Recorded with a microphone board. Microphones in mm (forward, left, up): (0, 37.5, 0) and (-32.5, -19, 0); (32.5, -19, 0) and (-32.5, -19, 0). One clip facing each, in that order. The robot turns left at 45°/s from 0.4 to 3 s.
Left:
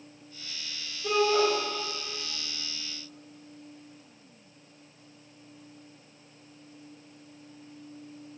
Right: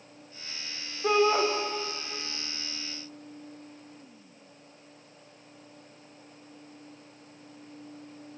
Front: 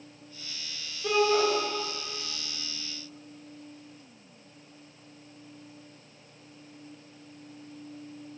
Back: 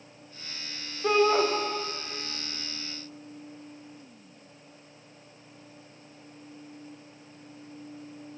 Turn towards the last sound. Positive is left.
turn(degrees=135)